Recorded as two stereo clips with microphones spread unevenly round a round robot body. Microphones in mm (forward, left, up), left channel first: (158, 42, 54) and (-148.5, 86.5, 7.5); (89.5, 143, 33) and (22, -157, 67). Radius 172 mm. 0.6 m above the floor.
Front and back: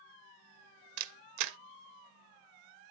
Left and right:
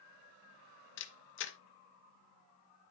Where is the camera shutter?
135° left, 0.6 m.